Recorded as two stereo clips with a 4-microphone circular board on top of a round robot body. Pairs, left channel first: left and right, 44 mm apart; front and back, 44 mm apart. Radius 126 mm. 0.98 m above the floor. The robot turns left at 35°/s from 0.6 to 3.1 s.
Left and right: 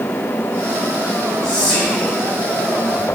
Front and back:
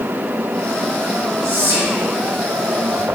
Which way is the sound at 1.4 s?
170° left.